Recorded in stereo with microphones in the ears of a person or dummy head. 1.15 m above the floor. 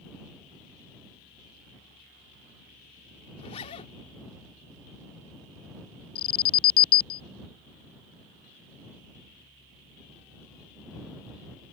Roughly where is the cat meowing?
I don't hear a cat meowing.